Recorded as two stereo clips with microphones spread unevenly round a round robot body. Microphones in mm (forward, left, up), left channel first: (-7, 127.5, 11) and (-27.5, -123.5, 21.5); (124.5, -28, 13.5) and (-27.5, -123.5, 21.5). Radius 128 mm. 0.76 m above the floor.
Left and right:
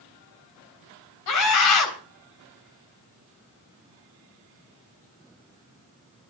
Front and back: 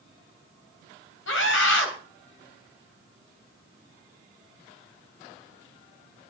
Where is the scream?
70° left, 3.5 m.